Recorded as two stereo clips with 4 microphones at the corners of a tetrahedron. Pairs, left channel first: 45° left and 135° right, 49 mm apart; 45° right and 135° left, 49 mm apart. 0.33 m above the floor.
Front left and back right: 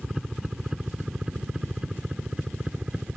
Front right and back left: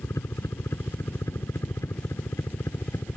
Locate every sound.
0.0 s a helicopter: 50° right; by 3.2 s 65° right